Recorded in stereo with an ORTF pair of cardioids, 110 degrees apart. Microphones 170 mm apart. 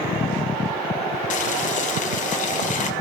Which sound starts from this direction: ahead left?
Boiling, at 1.3 s.